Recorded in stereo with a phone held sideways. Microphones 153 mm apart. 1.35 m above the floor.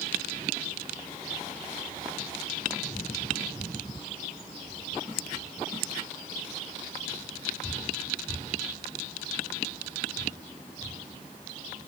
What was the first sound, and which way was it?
Only background noise.